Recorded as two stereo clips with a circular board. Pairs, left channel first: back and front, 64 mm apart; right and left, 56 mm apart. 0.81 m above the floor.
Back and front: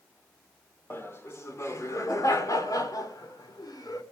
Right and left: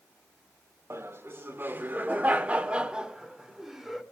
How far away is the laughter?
About 2 m.